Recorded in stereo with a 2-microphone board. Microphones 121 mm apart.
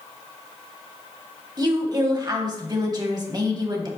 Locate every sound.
1.6 s a woman speaking: 35° right (ahead or behind), 1.3 m